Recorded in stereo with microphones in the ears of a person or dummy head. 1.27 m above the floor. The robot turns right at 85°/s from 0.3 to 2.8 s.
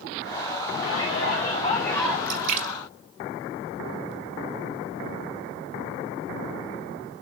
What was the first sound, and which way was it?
A shout, 85° left.